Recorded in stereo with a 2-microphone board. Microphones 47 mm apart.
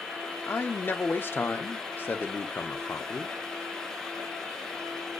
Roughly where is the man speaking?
Left.